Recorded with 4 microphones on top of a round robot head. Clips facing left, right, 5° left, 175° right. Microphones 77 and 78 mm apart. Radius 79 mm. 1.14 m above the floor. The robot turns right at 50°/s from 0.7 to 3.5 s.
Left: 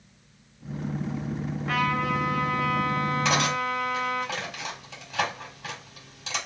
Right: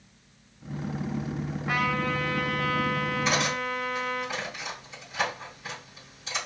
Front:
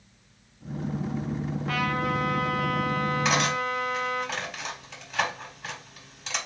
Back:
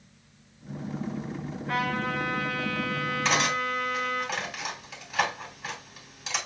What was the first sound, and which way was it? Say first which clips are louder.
A trumpet: left 2 dB, front 1 dB; 5° right.